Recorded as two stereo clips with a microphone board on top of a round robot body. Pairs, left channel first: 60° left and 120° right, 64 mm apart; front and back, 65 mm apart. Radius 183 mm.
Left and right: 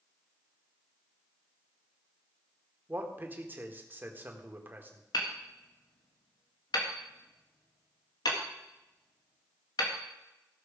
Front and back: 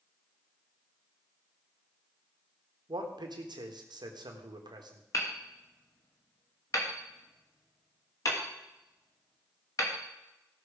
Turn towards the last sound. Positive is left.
turn(degrees=40)